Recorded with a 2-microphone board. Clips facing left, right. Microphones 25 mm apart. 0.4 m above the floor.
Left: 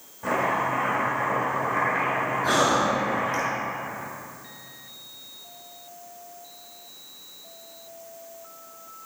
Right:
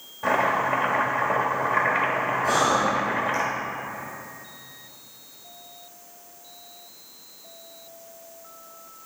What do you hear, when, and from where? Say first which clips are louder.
0.2 s chopping: right 2 dB; 35° right (ahead or behind), 1.3 m
2.4 s breathing: even; 60° left (ahead or behind), 2.5 m